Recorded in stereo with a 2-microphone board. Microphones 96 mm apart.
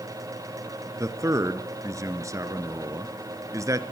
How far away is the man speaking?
About 1.6 m.